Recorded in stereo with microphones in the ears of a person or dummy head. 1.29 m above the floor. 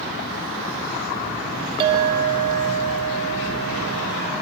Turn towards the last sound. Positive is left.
turn(degrees=-30)  # may be behind; listen again after turning